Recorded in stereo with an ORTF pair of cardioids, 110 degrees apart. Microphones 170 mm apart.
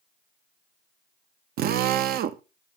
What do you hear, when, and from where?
1.6 s a drill: 65° right, 0.7 m